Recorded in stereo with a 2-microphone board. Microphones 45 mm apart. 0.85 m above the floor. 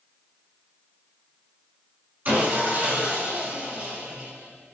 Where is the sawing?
40° right (ahead or behind), 5 m.